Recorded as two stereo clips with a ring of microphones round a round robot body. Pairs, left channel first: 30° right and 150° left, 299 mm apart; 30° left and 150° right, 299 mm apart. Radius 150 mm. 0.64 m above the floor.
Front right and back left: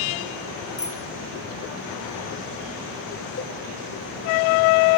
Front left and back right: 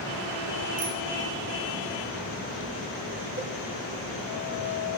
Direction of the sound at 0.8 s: 110° right.